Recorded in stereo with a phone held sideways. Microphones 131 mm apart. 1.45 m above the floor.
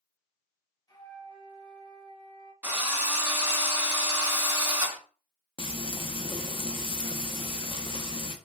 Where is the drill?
15° right (ahead or behind), 1.0 m.